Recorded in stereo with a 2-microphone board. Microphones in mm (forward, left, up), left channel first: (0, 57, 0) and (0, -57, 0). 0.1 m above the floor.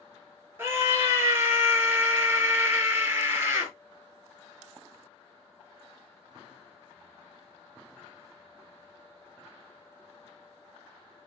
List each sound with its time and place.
0.6 s a scream: 20° right (ahead or behind), 1.8 m